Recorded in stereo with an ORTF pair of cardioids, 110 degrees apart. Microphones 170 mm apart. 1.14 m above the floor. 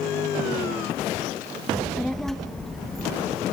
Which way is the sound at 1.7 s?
5° left.